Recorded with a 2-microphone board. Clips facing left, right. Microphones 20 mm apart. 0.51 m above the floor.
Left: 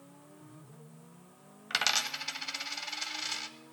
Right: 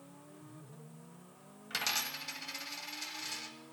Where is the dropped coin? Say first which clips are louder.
Left 6 dB; 55° left (ahead or behind), 0.6 m.